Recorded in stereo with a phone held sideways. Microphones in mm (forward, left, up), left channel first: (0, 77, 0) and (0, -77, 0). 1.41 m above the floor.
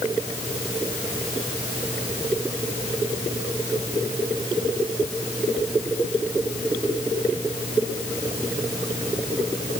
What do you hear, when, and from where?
Only background noise.